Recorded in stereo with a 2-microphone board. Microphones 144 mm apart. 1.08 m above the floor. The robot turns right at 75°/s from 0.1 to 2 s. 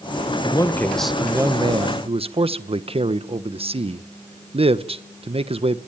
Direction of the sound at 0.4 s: 135° left.